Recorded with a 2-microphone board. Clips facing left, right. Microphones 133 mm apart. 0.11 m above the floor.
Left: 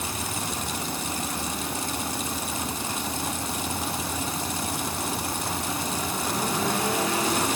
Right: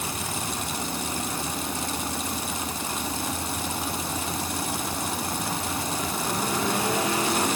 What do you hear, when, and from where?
Only background noise.